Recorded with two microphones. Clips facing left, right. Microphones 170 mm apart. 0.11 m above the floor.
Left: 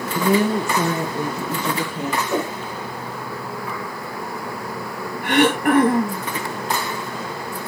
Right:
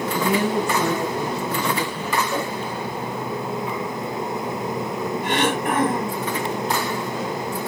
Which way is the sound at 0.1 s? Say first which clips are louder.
Left 4 dB; 35° left (ahead or behind).